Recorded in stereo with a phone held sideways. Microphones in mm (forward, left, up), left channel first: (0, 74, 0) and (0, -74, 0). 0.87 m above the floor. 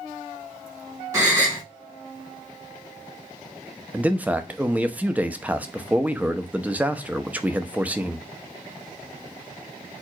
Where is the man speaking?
10° right (ahead or behind), 0.6 m.